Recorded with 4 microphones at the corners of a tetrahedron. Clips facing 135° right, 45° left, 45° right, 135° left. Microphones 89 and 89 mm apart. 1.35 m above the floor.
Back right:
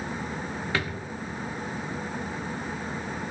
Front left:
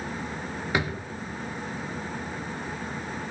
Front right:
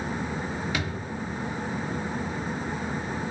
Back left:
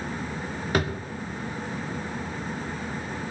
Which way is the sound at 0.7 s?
110° left.